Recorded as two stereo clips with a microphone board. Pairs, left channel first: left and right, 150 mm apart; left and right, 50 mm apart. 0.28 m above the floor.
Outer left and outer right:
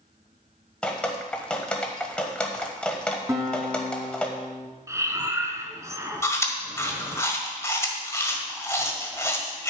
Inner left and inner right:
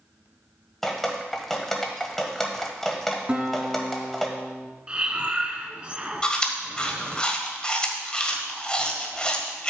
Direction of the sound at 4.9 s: 20° right (ahead or behind).